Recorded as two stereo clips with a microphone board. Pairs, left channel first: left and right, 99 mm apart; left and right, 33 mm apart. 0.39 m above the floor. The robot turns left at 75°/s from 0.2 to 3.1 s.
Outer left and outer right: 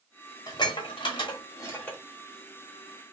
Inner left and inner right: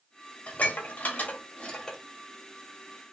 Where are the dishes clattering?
40° left (ahead or behind), 0.7 m; by 2.0 s 10° left (ahead or behind), 0.7 m.